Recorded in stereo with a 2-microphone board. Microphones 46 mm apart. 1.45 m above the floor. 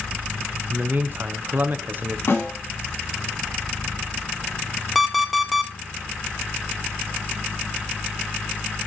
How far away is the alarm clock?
About 0.8 m.